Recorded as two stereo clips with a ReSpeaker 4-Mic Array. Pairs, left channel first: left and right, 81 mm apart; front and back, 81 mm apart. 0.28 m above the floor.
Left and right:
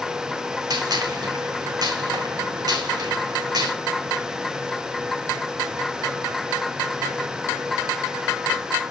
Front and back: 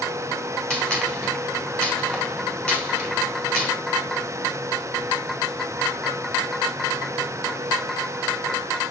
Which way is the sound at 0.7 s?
75° right.